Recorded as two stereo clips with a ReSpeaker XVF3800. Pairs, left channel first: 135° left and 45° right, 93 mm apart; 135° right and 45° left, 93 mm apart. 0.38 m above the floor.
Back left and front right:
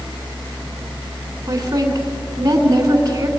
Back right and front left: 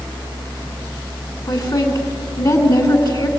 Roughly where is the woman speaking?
Right.